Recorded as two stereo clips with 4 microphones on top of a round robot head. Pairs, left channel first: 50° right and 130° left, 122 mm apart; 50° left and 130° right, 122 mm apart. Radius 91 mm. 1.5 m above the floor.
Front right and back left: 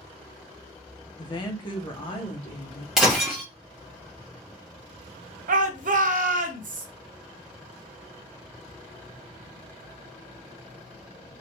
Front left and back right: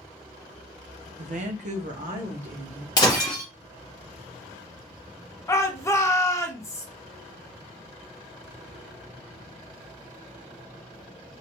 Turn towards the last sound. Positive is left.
turn(degrees=120)